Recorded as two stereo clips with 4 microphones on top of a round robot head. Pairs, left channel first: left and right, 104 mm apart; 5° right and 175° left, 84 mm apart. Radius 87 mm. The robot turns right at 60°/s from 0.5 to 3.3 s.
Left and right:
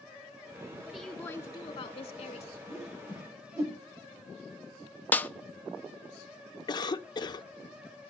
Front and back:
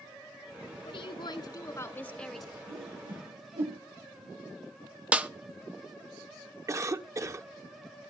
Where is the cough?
130° left, 1.3 m.